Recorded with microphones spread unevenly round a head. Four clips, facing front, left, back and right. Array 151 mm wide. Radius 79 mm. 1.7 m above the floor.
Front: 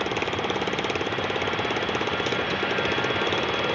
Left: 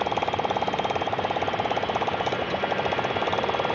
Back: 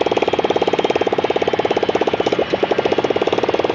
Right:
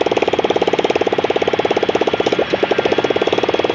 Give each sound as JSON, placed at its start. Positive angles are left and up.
{"t": 0.0, "sound": "a motorcycle", "azimuth_deg": -125}